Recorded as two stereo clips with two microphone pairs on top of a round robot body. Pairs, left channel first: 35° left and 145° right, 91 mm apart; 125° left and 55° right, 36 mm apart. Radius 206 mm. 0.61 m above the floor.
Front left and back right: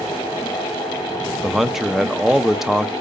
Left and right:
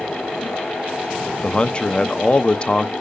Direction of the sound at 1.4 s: 135° left.